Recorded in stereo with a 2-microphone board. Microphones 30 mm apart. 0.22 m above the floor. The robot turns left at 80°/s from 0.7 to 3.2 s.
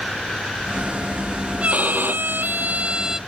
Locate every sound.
1.6 s a violin: 45° right; by 3.2 s 170° right